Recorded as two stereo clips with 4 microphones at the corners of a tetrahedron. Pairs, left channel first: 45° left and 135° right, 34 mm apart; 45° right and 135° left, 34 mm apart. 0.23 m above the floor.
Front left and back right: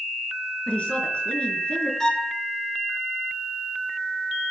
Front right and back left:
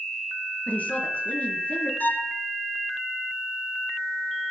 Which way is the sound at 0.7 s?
5° right.